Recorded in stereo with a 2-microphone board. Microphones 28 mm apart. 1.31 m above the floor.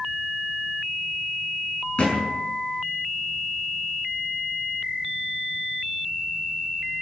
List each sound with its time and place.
2.0 s a thud: 45° left (ahead or behind), 6.5 m